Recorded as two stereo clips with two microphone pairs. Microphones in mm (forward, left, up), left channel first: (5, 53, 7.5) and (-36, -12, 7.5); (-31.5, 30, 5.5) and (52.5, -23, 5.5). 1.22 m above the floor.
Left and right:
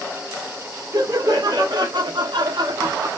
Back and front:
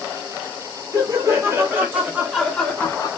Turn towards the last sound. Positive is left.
turn(degrees=-160)